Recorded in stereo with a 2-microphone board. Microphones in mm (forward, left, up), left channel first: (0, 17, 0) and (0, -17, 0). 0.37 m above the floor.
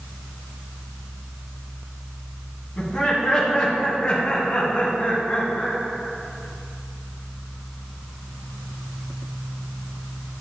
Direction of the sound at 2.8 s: 10° left (ahead or behind).